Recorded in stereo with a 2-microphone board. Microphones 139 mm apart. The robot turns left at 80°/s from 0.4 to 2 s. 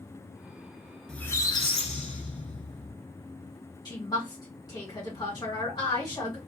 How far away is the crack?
No crack in this recording.